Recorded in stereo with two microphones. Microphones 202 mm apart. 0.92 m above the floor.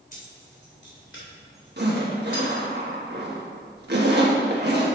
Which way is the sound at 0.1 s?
40° left (ahead or behind).